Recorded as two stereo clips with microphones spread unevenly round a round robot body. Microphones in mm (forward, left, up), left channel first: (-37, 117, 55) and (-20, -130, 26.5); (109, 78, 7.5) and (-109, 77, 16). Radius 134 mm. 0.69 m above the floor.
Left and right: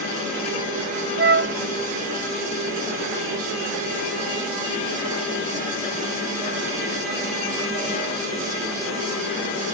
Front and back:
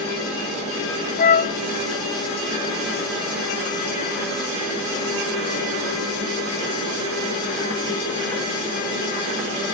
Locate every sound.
1.2 s a flute: 45° right